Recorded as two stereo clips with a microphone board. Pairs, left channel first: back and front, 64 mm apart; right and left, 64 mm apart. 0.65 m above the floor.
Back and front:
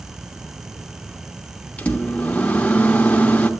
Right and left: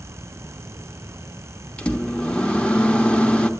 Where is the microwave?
140° right, 0.9 m.